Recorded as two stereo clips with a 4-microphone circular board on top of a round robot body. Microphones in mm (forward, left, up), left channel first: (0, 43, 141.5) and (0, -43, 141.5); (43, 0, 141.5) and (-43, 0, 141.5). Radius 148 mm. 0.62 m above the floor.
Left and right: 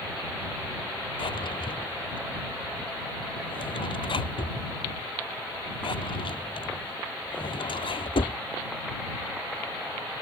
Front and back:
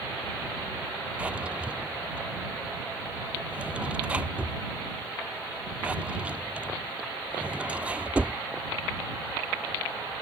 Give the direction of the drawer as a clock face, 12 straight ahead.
8 o'clock.